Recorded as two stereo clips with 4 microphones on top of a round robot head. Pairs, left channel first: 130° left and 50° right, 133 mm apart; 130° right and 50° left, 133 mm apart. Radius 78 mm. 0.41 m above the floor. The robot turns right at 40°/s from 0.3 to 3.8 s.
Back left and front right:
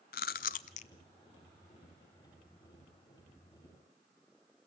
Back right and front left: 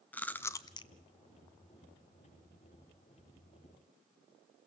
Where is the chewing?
150° left, 0.6 m; by 0.9 s 175° left, 0.6 m.